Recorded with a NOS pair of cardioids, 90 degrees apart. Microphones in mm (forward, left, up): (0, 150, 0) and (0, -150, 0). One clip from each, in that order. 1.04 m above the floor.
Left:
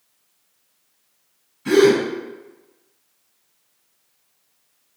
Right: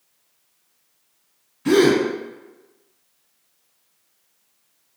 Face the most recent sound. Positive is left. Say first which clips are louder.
# left 2 dB
turn(degrees=-35)